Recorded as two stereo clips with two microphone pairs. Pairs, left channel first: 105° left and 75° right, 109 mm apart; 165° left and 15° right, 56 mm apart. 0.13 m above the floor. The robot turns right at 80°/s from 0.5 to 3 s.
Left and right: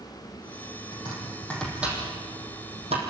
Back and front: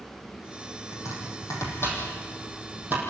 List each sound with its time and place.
0.9 s chopping: 135° left, 6 m; by 3.0 s 60° right, 6 m